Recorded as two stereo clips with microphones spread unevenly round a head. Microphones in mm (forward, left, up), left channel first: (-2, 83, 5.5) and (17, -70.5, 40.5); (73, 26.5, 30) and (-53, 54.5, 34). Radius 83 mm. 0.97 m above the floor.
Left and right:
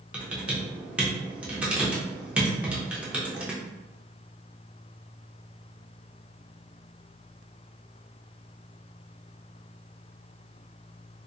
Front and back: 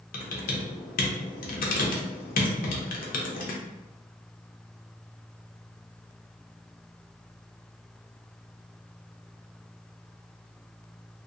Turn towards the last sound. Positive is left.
turn(degrees=-5)